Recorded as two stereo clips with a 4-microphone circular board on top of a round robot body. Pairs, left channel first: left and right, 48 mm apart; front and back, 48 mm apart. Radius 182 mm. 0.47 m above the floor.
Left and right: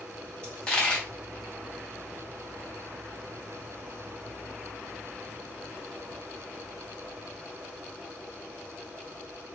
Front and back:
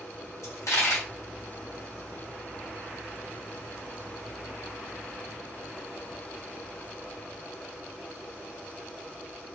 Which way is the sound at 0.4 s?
20° left.